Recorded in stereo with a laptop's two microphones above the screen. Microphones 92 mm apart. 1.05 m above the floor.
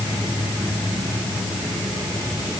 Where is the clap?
I don't hear a clap.